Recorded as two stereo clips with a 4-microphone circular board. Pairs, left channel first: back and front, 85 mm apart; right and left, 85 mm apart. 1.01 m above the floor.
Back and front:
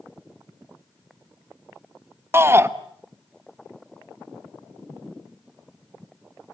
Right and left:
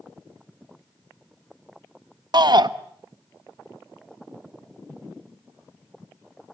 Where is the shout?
60° left, 1.2 m.